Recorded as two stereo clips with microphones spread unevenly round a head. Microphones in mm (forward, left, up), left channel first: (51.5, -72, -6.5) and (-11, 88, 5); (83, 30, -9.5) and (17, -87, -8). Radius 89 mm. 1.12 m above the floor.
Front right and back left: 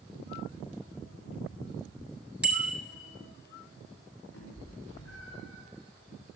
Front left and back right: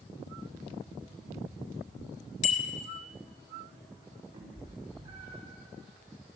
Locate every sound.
2.4 s a bicycle bell: 25° left, 2.5 m
4.3 s a cat meowing: 65° right, 9 m